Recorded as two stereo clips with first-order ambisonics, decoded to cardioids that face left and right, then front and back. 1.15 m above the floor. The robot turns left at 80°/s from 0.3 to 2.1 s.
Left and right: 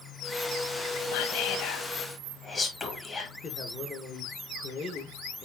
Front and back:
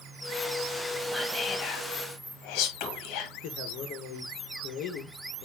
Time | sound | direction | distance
1.1 | whispering | 100° left | 1.6 m
3.4 | a man speaking | 30° left | 1.3 m